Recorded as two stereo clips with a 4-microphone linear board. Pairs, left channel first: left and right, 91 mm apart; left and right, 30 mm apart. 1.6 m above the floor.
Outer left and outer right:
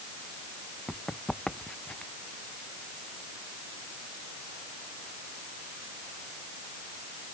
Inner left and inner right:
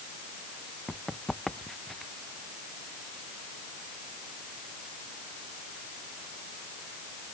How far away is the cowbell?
No cowbell in this recording.